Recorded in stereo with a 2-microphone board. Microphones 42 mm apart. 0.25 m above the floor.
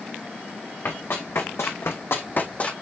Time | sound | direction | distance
0.8 | running footsteps | 65° left (ahead or behind) | 1.6 m